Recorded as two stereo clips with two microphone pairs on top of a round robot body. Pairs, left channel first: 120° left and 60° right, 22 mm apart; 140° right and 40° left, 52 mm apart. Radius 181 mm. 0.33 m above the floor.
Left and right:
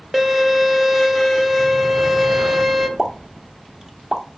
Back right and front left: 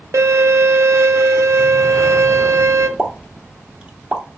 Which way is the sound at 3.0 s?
15° right.